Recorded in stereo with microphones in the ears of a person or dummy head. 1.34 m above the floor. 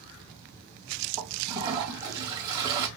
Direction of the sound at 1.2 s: 25° right (ahead or behind).